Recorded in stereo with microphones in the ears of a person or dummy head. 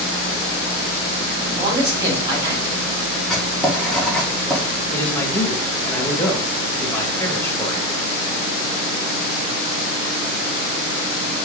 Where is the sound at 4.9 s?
10° left (ahead or behind), 1.8 m.